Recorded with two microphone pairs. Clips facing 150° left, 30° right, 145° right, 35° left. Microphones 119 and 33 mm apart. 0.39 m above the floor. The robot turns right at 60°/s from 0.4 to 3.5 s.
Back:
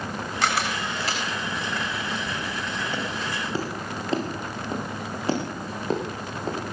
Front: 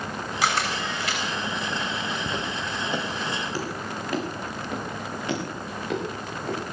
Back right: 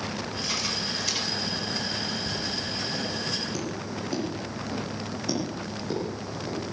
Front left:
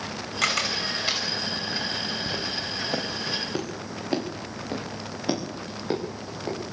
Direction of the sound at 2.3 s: Straight ahead.